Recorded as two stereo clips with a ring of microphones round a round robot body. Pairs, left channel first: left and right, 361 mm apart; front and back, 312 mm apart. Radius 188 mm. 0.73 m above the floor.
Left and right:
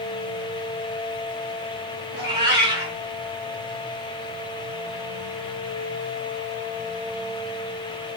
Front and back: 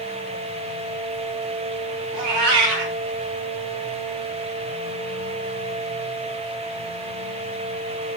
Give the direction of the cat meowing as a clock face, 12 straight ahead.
6 o'clock.